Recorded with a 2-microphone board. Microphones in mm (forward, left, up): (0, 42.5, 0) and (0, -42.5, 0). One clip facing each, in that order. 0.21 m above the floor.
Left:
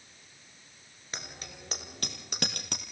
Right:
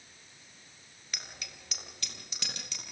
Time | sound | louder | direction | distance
1.1 | a bicycle bell | left 4 dB | 35° left (ahead or behind) | 3.5 m